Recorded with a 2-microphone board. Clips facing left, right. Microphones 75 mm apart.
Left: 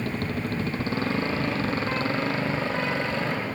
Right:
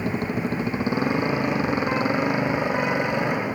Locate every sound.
0.0 s a motorcycle: 20° right (ahead or behind)